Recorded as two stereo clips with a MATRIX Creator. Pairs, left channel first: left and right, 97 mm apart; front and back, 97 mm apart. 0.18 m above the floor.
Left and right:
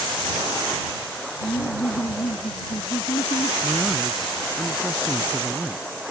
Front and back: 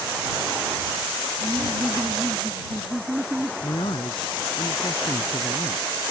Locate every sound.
1.4 s laughter: 105° left
3.6 s a man speaking: 5° left